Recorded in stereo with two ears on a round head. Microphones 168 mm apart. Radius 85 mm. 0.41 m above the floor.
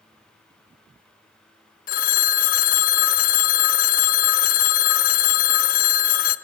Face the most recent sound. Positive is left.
turn(degrees=45)  # may be behind; listen again after turning